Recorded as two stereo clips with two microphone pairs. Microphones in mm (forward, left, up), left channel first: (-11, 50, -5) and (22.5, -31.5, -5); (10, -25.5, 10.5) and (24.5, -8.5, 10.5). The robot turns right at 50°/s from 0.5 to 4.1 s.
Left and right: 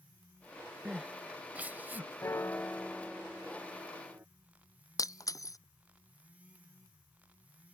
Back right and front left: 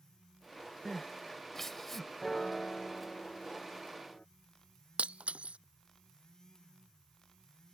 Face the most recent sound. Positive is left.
turn(degrees=60)